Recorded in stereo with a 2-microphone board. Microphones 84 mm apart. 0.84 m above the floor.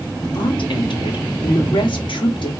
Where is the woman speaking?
75° left (ahead or behind), 1.7 m.